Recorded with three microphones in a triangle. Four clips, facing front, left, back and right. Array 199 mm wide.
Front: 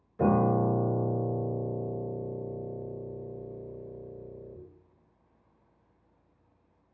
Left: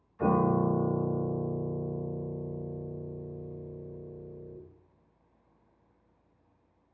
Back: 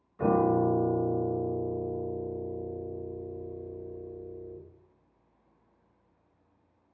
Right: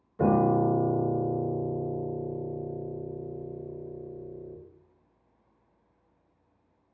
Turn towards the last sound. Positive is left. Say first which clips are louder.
# right 3 dB, even
turn(degrees=-60)